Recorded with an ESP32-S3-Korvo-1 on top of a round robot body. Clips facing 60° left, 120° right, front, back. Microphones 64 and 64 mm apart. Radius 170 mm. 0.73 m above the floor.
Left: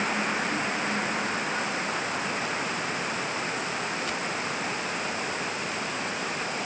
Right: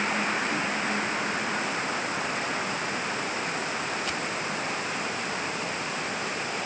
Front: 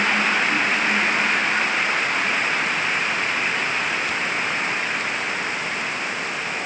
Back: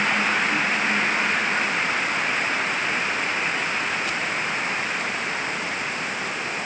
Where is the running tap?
No running tap in this recording.